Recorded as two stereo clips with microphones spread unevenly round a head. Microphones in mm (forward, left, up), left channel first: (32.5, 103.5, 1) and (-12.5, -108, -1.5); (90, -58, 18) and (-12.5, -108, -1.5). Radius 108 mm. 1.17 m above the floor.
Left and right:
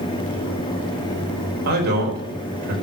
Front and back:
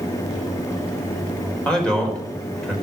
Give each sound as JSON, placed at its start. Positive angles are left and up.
{"t": 1.6, "sound": "a man speaking", "azimuth_deg": -55, "distance_m": 4.5}